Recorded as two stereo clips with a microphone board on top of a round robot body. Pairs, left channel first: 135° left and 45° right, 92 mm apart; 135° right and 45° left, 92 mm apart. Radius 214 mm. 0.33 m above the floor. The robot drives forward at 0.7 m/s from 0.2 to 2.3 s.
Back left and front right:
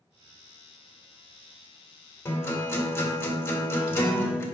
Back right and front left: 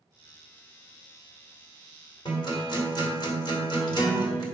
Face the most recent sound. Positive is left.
turn(degrees=-165)